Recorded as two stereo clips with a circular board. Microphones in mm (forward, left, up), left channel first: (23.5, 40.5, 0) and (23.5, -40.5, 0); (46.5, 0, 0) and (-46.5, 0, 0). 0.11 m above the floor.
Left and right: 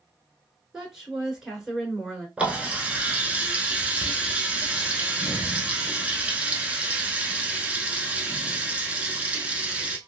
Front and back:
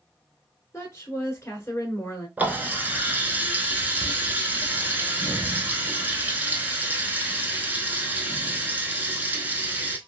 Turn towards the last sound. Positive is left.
turn(degrees=-140)